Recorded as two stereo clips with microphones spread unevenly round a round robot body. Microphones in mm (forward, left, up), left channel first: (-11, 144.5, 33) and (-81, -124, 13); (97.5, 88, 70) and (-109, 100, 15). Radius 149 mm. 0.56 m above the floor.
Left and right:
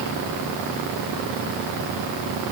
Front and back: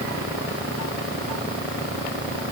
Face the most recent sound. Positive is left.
No sound to turn to.